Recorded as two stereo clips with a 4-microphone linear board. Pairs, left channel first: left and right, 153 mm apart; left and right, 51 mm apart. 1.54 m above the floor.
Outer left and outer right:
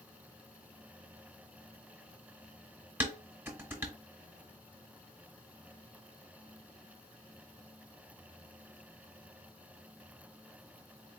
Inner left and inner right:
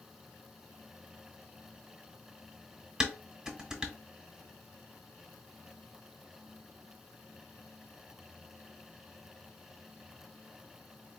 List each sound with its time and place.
3.0 s dishes clattering: 15° right (ahead or behind), 1.5 m